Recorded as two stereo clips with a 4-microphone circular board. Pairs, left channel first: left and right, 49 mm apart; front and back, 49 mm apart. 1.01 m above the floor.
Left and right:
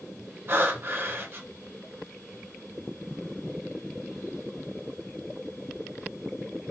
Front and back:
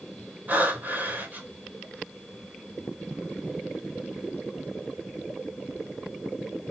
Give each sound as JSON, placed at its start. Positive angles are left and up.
{"t": 0.5, "sound": "breathing", "azimuth_deg": -130, "distance_m": 4.0}